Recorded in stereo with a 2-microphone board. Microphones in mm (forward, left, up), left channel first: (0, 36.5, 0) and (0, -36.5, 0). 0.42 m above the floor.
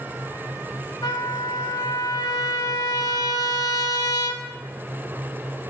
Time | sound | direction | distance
1.0 | a trumpet | 75° left (ahead or behind) | 0.8 m